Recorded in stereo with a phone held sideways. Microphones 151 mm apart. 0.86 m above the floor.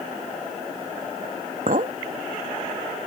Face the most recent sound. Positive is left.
turn(degrees=-65)  # may be behind; listen again after turning